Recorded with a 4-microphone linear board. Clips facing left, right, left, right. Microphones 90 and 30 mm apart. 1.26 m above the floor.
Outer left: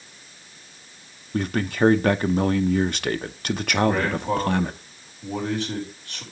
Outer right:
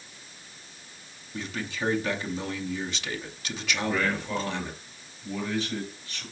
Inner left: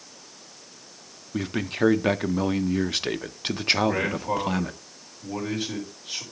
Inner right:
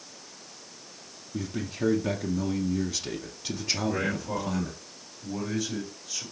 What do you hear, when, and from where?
1.3 s a man speaking: 55° left (ahead or behind), 0.6 m
3.9 s a man speaking: 65° left (ahead or behind), 4.5 m